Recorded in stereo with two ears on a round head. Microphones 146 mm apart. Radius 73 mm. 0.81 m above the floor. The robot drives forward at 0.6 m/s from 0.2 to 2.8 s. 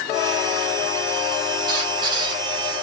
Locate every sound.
1.7 s a squeak: 30° right (ahead or behind), 7 m